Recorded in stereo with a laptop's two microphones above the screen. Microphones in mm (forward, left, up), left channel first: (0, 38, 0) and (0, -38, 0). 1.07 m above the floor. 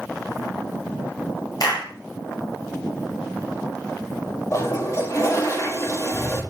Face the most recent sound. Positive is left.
turn(degrees=40)  # may be behind; listen again after turning